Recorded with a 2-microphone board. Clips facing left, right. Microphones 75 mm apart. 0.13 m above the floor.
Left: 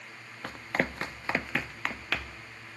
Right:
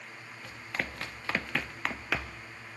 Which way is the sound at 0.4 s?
55° left (ahead or behind).